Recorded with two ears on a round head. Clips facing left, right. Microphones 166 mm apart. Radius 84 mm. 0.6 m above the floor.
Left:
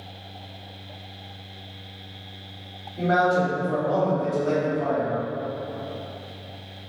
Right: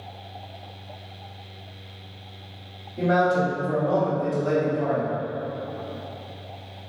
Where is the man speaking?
15° right (ahead or behind), 1.5 m.